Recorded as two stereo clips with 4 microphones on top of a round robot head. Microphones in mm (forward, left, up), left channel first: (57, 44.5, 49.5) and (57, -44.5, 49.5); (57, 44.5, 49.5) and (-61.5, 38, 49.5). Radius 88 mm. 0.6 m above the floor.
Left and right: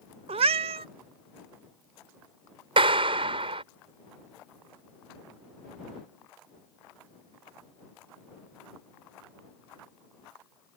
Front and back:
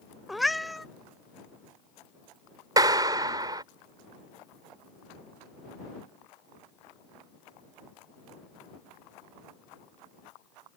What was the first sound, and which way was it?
A cat meowing, 85° right.